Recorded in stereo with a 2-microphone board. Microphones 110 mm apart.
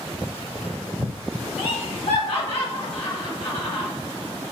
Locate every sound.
1.6 s laughter: 65° left (ahead or behind), 2.5 m